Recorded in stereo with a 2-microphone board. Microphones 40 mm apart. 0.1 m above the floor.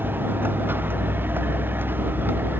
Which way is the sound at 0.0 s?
60° right (ahead or behind).